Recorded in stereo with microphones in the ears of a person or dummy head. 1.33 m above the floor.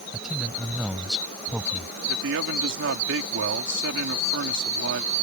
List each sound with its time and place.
0.1 s a man speaking: centre (ahead or behind)
2.1 s a man speaking: 65° right (ahead or behind)